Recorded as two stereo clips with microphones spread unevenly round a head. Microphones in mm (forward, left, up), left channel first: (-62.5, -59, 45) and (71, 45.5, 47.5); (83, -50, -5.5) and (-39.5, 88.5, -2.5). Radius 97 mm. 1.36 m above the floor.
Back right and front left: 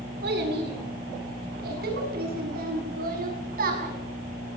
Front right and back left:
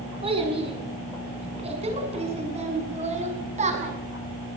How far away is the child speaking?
About 9 m.